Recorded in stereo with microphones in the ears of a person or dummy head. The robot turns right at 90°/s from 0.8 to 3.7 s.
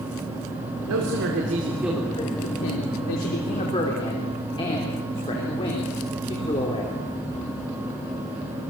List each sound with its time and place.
0.9 s a man speaking: 95° right, 4 m; by 6.9 s 160° left, 4 m